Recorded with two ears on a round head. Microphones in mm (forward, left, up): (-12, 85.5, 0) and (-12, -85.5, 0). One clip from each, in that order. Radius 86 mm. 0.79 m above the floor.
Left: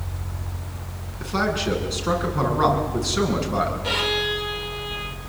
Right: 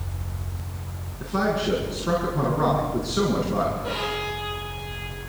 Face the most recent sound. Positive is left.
turn(degrees=55)  # may be behind; listen again after turning